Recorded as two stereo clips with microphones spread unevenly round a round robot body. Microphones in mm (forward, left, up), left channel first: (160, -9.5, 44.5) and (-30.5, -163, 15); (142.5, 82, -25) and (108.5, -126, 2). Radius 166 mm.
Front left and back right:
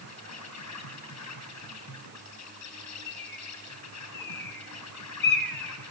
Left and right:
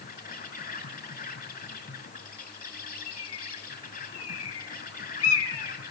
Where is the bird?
100° left, 1.6 m.